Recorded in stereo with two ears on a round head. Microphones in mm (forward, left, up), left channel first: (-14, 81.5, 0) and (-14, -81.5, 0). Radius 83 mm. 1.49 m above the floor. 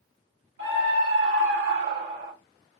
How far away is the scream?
About 2.5 m.